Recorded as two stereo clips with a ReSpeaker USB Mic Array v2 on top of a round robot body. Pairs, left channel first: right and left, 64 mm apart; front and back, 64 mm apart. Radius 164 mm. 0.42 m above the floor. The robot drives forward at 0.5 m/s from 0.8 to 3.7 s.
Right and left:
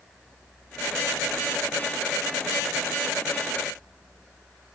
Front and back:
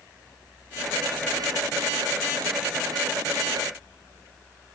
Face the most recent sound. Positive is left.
No sound to turn to.